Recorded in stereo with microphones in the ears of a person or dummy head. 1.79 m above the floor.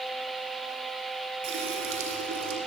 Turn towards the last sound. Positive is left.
turn(degrees=-70)  # may be behind; listen again after turning